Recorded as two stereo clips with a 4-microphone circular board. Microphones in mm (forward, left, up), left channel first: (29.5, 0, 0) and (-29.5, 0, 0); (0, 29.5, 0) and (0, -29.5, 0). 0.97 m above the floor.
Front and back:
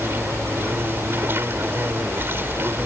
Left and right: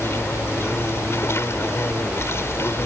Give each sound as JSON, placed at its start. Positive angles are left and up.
{"t": 0.0, "sound": "an insect", "azimuth_deg": 130}